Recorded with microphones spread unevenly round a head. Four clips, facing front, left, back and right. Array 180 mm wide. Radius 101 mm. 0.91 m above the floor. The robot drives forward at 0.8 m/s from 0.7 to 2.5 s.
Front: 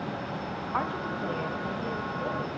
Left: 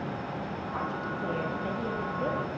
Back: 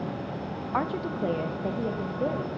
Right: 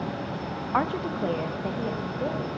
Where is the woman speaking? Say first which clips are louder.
Right 8 dB, back 3 dB; 100° right, 0.5 m; by 2.5 s 165° right, 1.5 m.